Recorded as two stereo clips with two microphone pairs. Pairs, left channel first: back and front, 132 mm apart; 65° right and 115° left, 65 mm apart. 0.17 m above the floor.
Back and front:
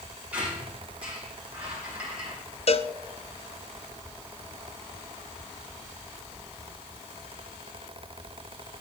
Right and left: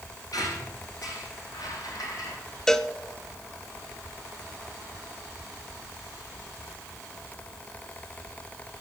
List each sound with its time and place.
0.3 s a squeak: 80° right, 5 m
2.7 s a cowbell: 145° right, 0.5 m